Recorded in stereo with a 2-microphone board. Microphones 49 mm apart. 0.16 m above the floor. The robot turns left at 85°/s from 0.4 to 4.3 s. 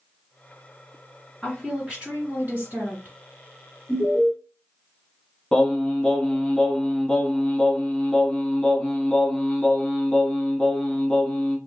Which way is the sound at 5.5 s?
20° left (ahead or behind).